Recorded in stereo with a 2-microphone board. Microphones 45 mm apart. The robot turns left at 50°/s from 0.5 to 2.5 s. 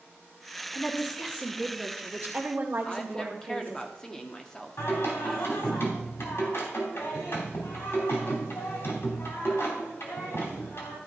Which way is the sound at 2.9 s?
15° left (ahead or behind).